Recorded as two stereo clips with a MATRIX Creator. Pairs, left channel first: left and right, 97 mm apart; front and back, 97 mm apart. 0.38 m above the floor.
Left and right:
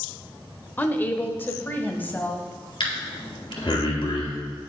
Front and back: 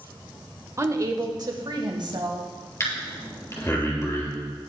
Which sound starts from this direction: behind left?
A woman speaking, at 0.8 s.